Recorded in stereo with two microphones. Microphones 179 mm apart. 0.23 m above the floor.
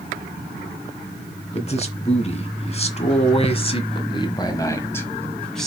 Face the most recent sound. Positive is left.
turn(degrees=0)  # may be behind; listen again after turning